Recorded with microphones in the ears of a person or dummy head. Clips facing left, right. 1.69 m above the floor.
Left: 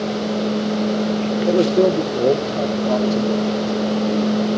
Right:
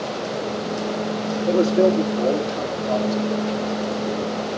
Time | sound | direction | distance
1.5 | a man speaking | 35° left (ahead or behind) | 1.2 m